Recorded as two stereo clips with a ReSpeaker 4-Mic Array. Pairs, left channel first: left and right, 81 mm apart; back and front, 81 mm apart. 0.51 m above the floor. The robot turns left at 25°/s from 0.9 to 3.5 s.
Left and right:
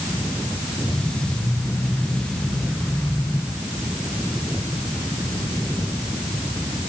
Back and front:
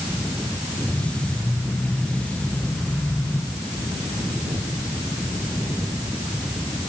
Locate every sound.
Only background noise.